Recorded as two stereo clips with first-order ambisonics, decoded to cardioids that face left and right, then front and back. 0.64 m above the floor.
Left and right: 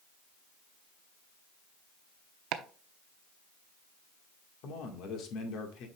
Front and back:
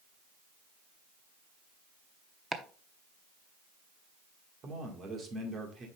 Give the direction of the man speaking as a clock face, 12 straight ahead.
8 o'clock.